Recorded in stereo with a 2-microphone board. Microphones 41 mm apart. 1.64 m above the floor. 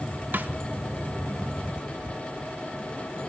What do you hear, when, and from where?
0.3 s a snare drum: 50° right (ahead or behind), 2.0 m